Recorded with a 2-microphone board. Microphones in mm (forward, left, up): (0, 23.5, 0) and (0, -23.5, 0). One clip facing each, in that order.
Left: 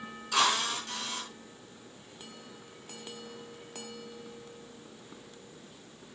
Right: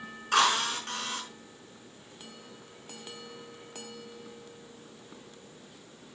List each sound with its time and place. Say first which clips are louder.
0.3 s a drill: right 3 dB; 45° right (ahead or behind), 6 m